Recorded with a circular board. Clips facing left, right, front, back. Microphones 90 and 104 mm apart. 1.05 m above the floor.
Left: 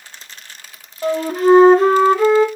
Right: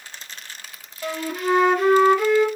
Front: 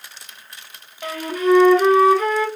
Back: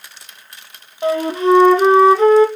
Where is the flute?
130° left, 0.7 m.